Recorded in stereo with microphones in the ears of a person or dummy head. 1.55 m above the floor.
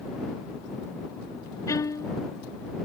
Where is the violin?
15° left (ahead or behind).